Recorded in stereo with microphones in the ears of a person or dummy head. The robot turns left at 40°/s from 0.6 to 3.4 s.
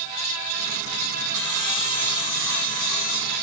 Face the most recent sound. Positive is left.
turn(degrees=90)